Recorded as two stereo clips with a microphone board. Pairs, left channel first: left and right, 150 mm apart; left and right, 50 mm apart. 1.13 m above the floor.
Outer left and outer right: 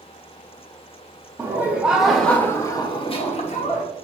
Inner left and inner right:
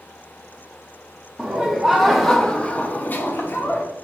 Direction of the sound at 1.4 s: 15° right (ahead or behind).